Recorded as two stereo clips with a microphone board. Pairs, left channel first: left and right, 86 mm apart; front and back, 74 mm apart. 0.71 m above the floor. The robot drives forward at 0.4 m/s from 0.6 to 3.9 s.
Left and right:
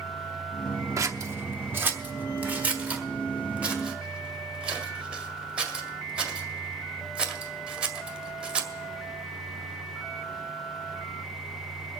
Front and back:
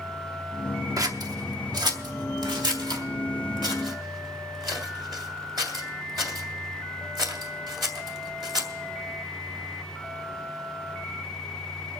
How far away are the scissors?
About 0.7 m.